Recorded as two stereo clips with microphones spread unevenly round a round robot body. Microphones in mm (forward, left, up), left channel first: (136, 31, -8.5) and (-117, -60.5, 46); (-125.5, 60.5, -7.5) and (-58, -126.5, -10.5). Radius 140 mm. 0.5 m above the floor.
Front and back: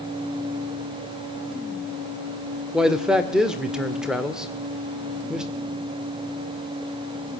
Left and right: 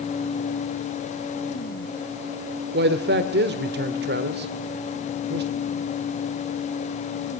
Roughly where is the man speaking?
Ahead right.